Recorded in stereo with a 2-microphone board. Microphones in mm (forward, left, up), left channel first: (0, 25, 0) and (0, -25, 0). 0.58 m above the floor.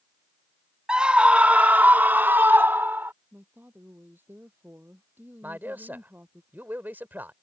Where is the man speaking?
40° right (ahead or behind).